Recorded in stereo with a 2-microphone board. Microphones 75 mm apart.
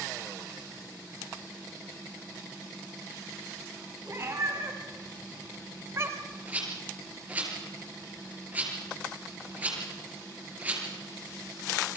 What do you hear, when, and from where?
4.0 s a cat meowing: 40° right (ahead or behind), 3 m; by 6.4 s 35° right (ahead or behind), 1.0 m
6.5 s a rattle: 20° right (ahead or behind), 6 m